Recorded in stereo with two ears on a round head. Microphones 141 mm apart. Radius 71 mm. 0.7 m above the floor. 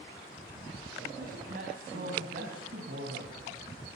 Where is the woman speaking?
60° right (ahead or behind), 4.5 m.